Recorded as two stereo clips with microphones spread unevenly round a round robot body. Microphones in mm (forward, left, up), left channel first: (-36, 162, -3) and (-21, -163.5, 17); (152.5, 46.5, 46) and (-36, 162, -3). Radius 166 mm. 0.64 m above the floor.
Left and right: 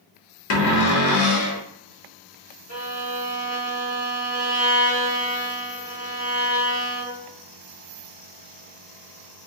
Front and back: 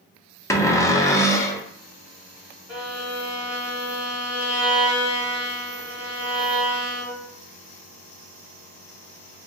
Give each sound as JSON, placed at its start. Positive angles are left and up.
{"t": 0.5, "sound": "a cupboard door", "azimuth_deg": 45, "distance_m": 0.6}
{"t": 2.7, "sound": "a violin", "azimuth_deg": 75, "distance_m": 1.7}